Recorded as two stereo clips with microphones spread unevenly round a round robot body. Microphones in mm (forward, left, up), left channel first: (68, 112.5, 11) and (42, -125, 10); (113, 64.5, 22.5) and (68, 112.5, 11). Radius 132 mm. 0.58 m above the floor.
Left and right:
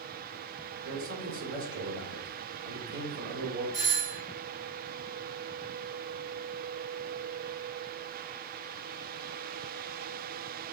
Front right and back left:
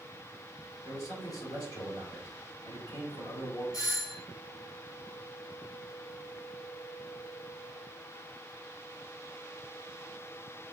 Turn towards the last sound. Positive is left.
turn(degrees=-45)